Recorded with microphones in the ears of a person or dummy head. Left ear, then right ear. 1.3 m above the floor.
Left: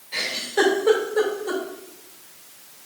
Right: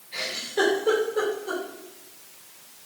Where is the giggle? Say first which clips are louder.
Left 4 dB; 15° left (ahead or behind), 2.5 m.